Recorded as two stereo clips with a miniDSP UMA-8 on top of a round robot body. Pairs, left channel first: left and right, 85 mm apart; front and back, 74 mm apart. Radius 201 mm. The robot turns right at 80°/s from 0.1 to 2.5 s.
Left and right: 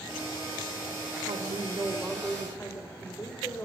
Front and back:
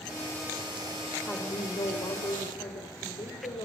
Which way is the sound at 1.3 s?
75° right.